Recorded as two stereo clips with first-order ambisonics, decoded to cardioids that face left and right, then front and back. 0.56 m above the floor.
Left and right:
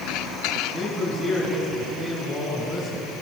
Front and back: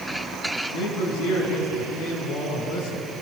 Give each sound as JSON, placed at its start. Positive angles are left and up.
{"t": 0.7, "sound": "a man speaking", "azimuth_deg": -10, "distance_m": 6.5}